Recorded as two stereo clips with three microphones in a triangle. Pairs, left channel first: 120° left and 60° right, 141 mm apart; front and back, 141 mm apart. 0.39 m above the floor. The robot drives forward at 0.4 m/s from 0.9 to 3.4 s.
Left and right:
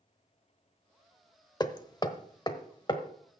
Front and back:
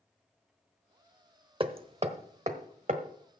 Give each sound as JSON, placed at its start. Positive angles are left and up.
{"t": 1.6, "sound": "hammering", "azimuth_deg": 165, "distance_m": 0.8}